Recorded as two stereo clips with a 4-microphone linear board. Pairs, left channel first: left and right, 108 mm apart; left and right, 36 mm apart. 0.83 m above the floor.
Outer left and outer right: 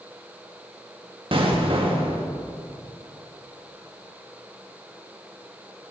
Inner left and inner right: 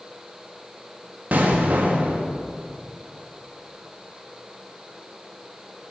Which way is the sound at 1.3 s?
55° right (ahead or behind).